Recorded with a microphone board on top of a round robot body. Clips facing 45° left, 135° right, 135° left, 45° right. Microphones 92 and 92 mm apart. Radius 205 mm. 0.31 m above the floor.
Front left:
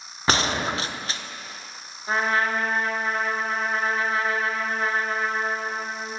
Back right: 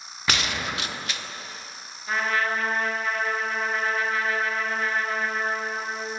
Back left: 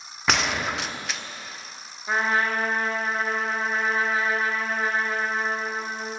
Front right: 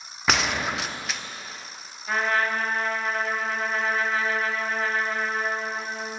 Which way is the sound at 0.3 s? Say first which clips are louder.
Front left 5 dB, even; 40° left.